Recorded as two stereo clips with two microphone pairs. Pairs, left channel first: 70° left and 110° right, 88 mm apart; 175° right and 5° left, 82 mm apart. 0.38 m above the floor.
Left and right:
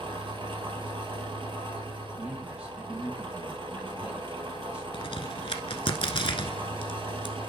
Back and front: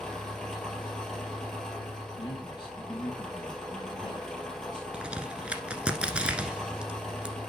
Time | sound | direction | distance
0.0 | an engine running | 90° right | 2.5 m
2.2 | a man speaking | 175° left | 2.5 m
4.9 | a crack | 80° left | 1.2 m